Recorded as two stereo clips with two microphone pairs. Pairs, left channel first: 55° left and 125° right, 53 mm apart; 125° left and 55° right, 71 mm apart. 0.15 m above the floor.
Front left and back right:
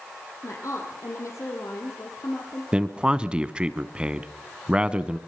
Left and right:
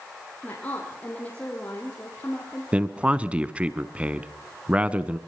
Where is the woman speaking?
55° left, 6 m; by 2.6 s 60° left, 4 m.